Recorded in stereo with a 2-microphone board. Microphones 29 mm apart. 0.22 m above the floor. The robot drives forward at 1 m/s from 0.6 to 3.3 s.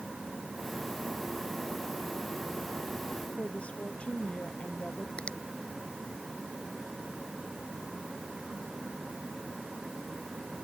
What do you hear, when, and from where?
3.4 s a woman speaking: 45° left (ahead or behind)
5.2 s a finger snap: 40° left (ahead or behind)